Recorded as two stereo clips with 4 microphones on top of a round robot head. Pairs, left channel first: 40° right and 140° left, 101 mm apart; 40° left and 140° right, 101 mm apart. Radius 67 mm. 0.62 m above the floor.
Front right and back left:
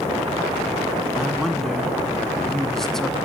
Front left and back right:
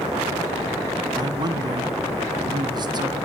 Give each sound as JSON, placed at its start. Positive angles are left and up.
{"t": 1.2, "sound": "a man speaking", "azimuth_deg": -120, "distance_m": 1.4}